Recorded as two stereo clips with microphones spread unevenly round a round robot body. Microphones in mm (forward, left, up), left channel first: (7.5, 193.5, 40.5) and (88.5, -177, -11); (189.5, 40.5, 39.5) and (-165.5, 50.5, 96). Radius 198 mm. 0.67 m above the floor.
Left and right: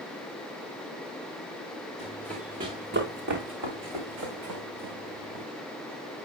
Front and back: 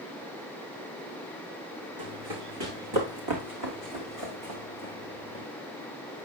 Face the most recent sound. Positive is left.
turn(degrees=-120)